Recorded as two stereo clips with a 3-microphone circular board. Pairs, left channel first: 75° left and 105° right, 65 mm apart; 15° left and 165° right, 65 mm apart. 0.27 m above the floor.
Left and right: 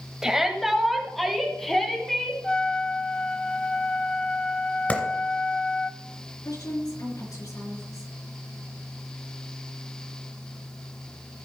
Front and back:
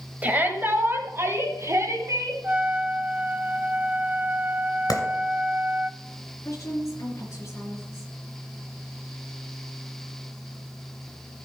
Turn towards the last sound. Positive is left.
turn(degrees=60)